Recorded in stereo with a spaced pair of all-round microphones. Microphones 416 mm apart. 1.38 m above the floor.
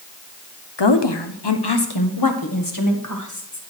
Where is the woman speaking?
70° left (ahead or behind), 0.9 m; by 3.6 s 40° left (ahead or behind), 1.8 m.